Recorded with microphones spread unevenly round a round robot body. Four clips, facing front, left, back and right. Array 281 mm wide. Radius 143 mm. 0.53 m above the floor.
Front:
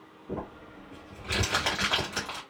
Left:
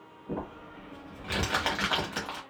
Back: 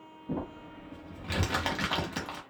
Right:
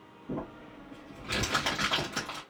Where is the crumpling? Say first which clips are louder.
Left 1 dB, back 1 dB; 160° right, 1.1 m.